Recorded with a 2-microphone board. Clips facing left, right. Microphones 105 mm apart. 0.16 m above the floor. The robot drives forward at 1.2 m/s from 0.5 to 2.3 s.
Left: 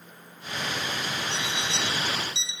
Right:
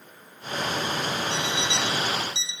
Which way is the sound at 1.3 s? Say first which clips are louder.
Right 4 dB; 35° left (ahead or behind).